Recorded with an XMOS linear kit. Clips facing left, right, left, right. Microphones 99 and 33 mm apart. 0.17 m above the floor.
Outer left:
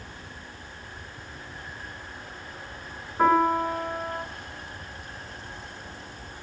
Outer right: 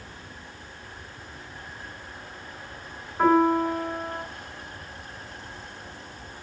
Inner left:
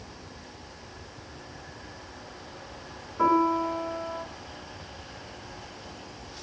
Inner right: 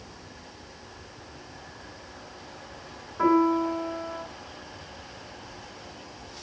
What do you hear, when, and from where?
3.2 s a piano: 5° left (ahead or behind), 2 m